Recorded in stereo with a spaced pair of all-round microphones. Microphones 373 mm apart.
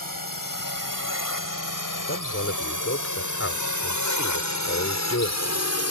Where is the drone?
60° left (ahead or behind); by 5.9 s 40° left (ahead or behind).